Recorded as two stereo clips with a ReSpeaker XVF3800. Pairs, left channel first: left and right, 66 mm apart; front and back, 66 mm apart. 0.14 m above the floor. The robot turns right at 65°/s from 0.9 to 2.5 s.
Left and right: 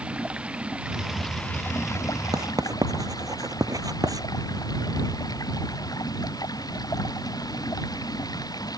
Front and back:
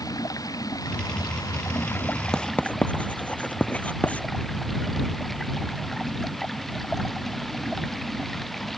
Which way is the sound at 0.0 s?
15° right.